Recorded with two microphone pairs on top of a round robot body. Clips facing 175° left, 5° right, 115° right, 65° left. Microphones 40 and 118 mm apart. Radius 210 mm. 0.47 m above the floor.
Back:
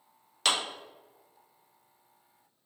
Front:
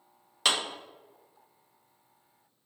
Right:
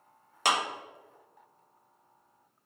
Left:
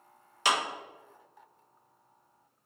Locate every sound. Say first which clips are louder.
0.5 s a clap: front 1 dB, even; 90° right, 1.5 m